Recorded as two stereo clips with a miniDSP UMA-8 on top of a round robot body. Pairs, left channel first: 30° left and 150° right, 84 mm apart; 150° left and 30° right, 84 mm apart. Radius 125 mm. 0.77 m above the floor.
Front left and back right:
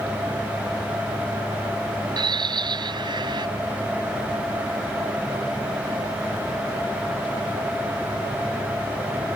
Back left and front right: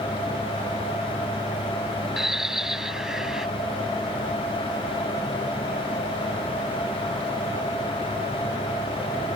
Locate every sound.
2.2 s a bird: 115° right